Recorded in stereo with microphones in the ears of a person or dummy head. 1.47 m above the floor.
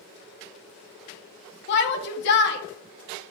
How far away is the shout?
About 1.0 m.